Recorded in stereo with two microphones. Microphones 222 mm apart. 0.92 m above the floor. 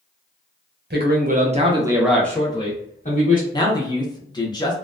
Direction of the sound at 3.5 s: 20° left (ahead or behind).